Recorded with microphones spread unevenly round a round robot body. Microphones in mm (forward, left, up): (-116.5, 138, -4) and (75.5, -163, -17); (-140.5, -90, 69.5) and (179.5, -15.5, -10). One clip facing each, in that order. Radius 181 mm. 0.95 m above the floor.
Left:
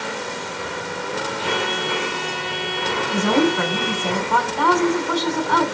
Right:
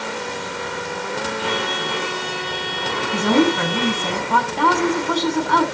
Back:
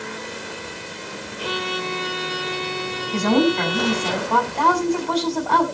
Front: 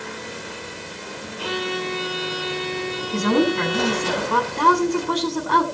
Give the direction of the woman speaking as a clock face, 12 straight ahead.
2 o'clock.